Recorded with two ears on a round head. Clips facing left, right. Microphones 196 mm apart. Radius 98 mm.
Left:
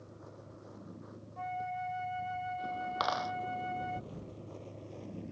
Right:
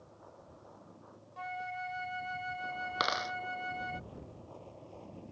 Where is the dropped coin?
25° right (ahead or behind).